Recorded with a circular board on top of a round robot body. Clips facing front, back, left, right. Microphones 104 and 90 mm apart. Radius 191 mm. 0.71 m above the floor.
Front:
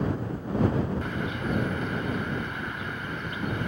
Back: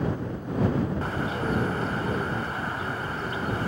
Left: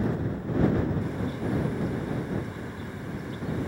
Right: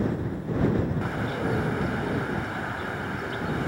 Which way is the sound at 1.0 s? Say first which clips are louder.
Back 3 dB, right 2 dB; 125° right.